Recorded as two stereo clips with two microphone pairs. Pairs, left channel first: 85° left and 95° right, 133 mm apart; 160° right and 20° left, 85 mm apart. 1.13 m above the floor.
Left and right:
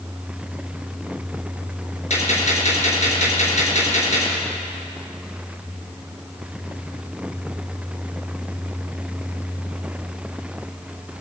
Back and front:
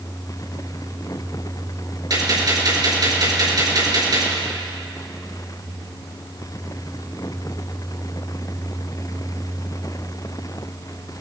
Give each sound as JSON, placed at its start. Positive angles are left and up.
{"t": 2.1, "sound": "a gunshot", "azimuth_deg": 55, "distance_m": 3.5}